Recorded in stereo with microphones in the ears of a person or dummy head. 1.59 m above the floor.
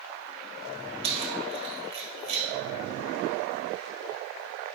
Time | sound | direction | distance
1.0 | keys jangling | 30° right (ahead or behind) | 1.2 m